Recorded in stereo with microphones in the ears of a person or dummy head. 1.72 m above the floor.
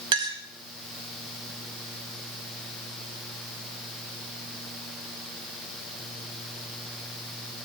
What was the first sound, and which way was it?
A clink, 35° right (ahead or behind).